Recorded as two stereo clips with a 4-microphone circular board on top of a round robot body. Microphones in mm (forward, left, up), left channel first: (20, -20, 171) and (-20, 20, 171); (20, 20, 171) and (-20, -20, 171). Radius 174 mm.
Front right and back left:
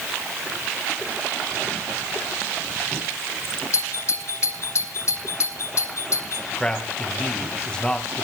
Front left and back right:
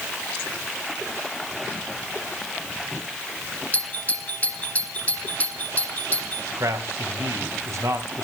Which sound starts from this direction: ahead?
A doorbell, at 3.7 s.